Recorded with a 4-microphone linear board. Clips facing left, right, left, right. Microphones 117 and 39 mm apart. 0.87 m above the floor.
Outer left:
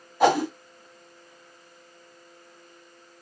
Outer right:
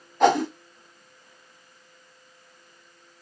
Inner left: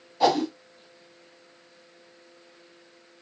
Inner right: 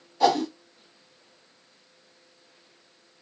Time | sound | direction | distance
0.2 | a whoosh | 5° left (ahead or behind) | 1.1 m